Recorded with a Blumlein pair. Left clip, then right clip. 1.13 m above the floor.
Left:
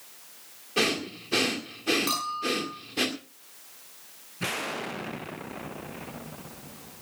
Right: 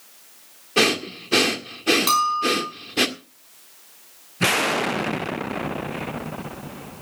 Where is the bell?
25° right, 5 m.